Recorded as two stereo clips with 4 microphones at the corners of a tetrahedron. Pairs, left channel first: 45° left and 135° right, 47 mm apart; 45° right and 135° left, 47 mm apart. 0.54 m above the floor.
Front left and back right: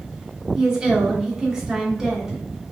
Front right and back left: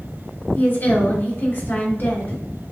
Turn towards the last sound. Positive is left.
turn(degrees=-60)